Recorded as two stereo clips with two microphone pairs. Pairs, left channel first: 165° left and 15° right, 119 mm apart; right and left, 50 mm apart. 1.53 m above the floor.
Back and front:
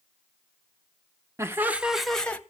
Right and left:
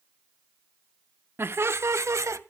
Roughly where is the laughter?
Ahead left.